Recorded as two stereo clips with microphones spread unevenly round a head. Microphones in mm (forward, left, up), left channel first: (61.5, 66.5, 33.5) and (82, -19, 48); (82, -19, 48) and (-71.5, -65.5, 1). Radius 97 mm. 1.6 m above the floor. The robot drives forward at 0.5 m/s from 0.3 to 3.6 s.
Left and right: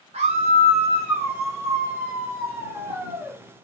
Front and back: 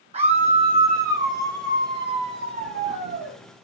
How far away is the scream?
About 1.1 m.